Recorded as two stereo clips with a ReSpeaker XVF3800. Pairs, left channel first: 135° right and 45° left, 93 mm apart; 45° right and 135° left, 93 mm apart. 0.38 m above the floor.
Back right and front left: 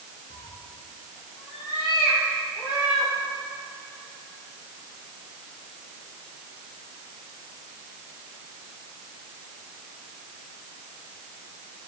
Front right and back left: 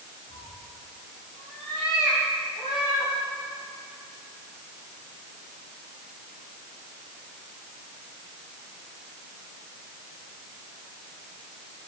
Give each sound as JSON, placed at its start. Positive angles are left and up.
{"t": 0.3, "sound": "a cat meowing", "azimuth_deg": -105, "distance_m": 4.5}